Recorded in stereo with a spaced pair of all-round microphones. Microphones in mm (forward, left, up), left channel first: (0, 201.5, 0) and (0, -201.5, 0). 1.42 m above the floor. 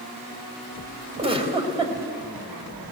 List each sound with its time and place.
1.2 s a giggle: 15° right (ahead or behind), 2.5 m